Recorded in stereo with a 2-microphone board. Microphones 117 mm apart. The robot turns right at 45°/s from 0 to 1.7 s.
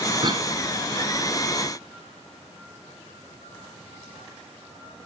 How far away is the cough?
About 1.7 m.